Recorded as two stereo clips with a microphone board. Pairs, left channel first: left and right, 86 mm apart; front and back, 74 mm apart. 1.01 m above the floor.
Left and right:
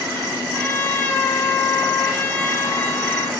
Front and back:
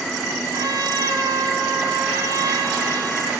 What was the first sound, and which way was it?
A trumpet, 160° left.